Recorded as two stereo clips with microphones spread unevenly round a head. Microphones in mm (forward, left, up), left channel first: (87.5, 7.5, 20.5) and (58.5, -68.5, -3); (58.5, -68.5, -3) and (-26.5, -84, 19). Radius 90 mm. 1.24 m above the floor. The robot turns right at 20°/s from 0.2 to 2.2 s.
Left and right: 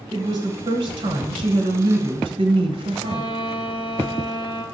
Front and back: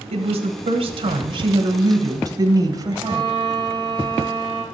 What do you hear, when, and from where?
0.1 s a woman speaking: 160° right, 1.2 m; by 3.3 s 120° right, 1.2 m
3.0 s a violin: 80° left, 0.9 m